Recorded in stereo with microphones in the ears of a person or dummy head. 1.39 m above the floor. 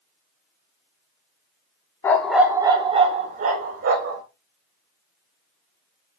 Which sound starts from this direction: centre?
A dog barking, at 2.0 s.